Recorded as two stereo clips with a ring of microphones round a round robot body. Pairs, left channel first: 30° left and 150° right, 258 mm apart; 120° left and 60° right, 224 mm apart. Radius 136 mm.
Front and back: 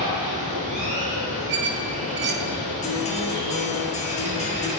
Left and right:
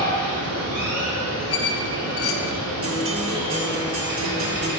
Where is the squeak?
160° left, 0.6 m.